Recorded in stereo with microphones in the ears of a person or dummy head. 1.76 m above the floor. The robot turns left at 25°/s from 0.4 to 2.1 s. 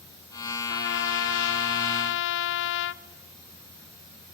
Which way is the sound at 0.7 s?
110° left.